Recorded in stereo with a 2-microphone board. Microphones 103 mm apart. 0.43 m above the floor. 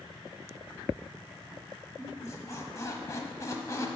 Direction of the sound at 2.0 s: 30° left (ahead or behind).